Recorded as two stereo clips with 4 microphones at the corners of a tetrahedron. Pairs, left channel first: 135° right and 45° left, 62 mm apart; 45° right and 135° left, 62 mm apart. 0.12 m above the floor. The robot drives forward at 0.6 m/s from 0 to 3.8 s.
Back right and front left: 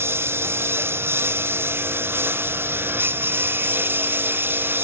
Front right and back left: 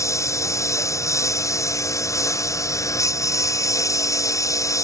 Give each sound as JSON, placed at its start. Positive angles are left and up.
{"t": 0.0, "sound": "a lawn mower", "azimuth_deg": -10}